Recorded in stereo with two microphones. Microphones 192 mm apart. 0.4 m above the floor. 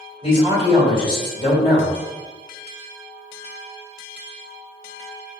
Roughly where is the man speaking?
Left.